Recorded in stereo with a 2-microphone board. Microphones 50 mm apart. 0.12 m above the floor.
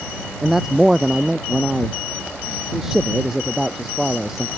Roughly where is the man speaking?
Centre.